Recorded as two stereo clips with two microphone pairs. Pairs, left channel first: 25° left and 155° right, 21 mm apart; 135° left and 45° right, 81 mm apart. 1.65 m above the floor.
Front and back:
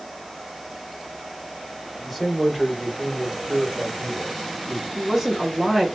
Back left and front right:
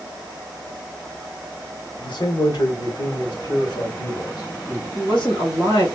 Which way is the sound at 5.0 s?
140° left.